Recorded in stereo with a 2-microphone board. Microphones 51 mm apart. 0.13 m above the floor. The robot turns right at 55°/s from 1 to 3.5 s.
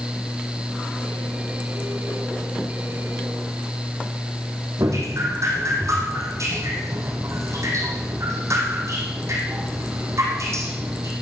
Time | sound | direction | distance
4.8 | dripping | 70° right (ahead or behind) | 4.5 m